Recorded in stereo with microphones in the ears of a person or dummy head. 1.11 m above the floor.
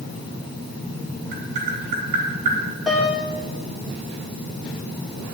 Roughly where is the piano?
Centre.